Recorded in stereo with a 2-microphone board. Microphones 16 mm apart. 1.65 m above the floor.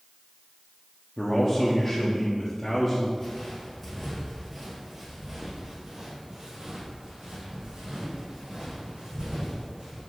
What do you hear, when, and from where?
1.2 s a man speaking: 30° left (ahead or behind), 0.8 m
3.2 s footsteps: 25° left (ahead or behind), 2 m; by 10.0 s 65° right (ahead or behind), 5 m